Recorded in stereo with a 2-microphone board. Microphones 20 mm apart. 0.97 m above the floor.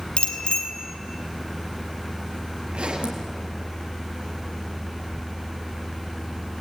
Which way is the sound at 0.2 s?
75° left (ahead or behind).